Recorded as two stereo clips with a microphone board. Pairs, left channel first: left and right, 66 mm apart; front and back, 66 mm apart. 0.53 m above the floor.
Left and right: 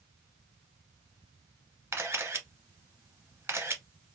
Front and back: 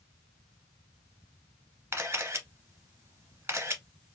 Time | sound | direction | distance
1.9 | a camera shutter | 130° right | 1.0 m